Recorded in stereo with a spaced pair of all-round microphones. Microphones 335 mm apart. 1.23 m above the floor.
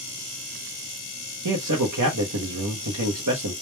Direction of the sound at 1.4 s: 60° right (ahead or behind).